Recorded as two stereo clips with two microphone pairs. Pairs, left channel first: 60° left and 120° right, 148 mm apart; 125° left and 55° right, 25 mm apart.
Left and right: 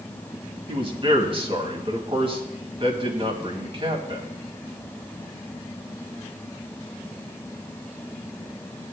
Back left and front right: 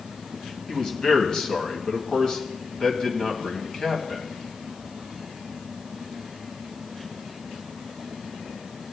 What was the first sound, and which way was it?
A man speaking, 170° right.